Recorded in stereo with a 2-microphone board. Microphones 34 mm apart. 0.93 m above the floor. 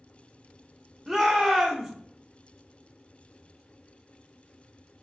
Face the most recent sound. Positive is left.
turn(degrees=-15)  # may be behind; listen again after turning